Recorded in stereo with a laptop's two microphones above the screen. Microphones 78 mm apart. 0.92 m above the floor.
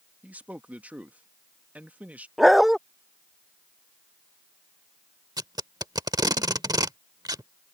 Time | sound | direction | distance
0.2 | a man speaking | 20° right (ahead or behind) | ?
2.4 | a dog barking | centre (ahead or behind) | ?
5.4 | tape being pulled | 65° right (ahead or behind) | ?